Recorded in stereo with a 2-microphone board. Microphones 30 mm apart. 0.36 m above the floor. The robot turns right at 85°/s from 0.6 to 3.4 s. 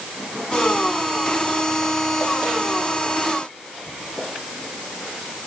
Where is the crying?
No crying in this recording.